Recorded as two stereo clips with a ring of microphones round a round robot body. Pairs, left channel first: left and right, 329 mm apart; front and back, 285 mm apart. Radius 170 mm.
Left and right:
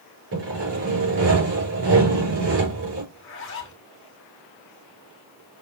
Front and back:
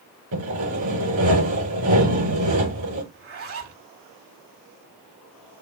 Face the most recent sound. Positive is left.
turn(degrees=140)